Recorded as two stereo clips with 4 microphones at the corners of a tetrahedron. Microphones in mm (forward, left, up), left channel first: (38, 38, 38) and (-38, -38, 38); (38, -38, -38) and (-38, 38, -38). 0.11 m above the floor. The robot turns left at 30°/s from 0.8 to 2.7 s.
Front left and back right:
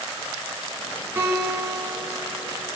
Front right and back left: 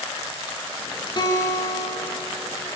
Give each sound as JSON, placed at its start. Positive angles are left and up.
{"t": 1.2, "sound": "a guitar", "azimuth_deg": -70, "distance_m": 1.5}